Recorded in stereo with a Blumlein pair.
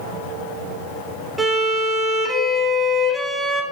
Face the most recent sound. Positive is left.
turn(degrees=-10)